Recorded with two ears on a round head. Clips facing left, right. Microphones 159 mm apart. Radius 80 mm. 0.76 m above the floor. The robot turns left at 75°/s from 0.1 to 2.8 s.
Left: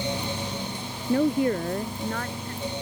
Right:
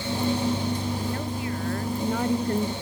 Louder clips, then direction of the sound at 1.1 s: Left 8 dB; 70° left.